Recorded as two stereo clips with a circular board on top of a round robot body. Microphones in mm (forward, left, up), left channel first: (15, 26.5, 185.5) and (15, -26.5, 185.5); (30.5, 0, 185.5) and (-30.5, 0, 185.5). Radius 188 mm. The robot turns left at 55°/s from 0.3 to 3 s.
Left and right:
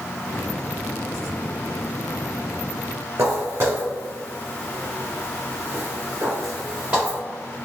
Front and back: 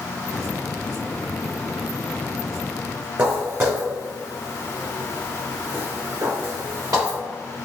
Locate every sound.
3.2 s footsteps: 120° right, 1.5 m; by 7.2 s 160° right, 3 m